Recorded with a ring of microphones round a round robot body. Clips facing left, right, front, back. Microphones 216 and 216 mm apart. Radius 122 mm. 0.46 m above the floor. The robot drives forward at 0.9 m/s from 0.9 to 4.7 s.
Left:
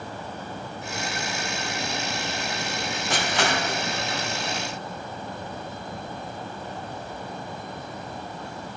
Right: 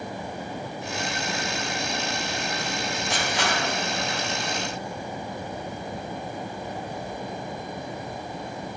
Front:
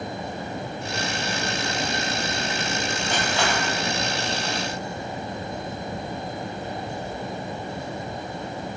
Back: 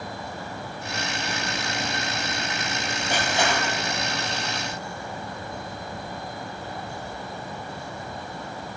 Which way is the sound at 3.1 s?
100° left.